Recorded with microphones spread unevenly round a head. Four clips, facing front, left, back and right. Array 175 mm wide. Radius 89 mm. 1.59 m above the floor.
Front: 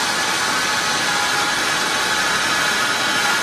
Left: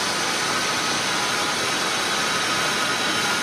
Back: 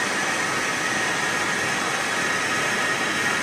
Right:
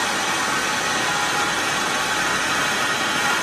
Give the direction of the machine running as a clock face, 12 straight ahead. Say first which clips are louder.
Right 2 dB, front 4 dB; 12 o'clock.